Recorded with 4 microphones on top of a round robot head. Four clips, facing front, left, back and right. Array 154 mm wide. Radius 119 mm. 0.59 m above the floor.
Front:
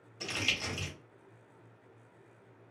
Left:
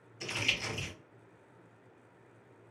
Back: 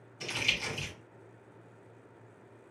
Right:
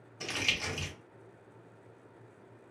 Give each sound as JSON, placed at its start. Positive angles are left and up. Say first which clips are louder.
{"t": 0.2, "sound": "crumpling", "louder": "right 1 dB, back 1 dB", "azimuth_deg": -65, "distance_m": 1.7}